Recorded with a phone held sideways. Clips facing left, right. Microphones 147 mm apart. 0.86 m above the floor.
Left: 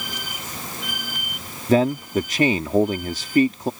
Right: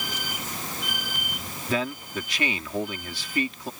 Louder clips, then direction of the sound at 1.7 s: Left 11 dB; 40° left (ahead or behind).